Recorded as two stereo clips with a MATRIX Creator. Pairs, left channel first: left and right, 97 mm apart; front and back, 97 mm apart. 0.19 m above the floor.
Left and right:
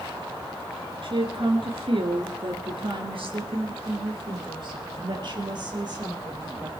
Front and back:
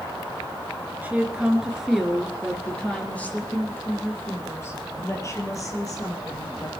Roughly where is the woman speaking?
Right.